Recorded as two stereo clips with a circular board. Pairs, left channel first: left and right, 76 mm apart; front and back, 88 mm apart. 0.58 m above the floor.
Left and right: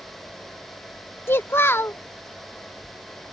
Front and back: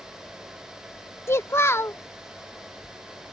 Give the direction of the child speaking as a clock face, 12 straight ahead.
10 o'clock.